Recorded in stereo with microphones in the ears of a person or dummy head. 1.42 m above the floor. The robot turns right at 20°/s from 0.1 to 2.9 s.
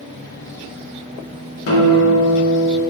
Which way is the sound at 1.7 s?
75° left (ahead or behind).